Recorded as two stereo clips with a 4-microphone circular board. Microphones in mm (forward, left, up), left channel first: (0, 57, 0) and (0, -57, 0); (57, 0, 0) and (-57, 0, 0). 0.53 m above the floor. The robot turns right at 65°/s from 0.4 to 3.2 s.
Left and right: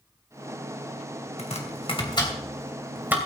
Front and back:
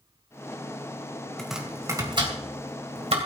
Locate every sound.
1.4 s chopping: 85° left, 3 m; by 3.2 s 160° right, 3 m